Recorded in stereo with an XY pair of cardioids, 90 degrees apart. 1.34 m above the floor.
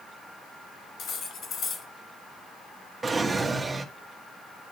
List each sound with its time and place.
1.0 s cutlery clinking: 70° left, 3.5 m
3.0 s a drawer: 30° right, 1.6 m